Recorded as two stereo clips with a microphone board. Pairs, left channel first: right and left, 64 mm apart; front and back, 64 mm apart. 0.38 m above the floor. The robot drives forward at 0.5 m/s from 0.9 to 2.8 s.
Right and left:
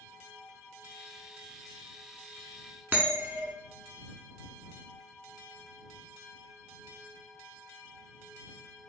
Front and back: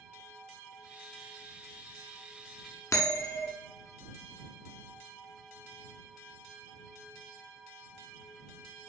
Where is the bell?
30° left, 0.7 m.